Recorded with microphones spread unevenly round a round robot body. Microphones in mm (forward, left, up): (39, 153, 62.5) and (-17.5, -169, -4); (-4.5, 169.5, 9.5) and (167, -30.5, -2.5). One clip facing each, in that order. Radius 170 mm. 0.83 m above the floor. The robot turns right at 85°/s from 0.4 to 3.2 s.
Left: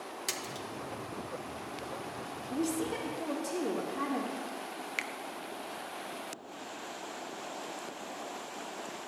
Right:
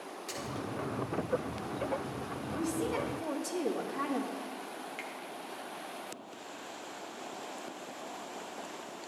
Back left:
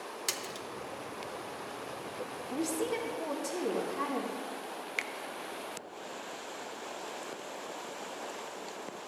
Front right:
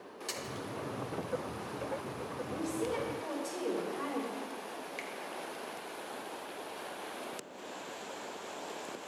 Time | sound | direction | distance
0.3 | a splash | 125° left | 0.9 m
2.5 | a woman speaking | 120° left | 1.7 m
5.0 | a finger snap | 110° left | 0.5 m